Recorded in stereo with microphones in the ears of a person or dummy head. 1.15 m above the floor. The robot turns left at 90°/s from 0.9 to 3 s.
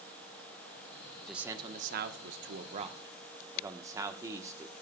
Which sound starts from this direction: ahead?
A man speaking, at 1.2 s.